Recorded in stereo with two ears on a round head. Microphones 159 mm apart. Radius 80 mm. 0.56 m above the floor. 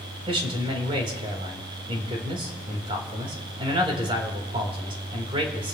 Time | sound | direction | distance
0.3 | a man speaking | 30° right (ahead or behind) | 3.5 m